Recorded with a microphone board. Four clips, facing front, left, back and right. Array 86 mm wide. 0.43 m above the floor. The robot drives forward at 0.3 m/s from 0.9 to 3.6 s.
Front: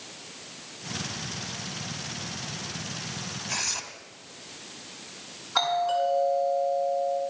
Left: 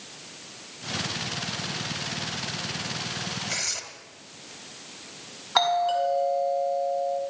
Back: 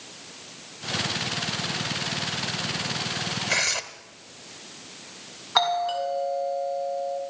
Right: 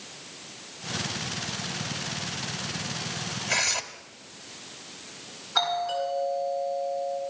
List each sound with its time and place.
3.5 s tearing paper: 155° right, 1.2 m; by 3.8 s 160° right, 1.2 m
5.5 s a doorbell: 130° left, 5.5 m